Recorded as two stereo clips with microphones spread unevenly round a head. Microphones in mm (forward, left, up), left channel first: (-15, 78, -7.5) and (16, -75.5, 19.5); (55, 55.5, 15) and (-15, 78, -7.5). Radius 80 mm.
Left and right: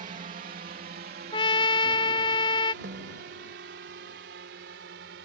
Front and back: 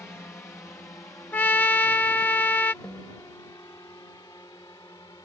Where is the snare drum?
95° right.